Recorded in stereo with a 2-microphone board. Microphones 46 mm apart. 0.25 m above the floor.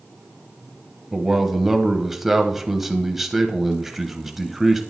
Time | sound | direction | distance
1.1 | a man speaking | 5° right (ahead or behind) | 1.2 m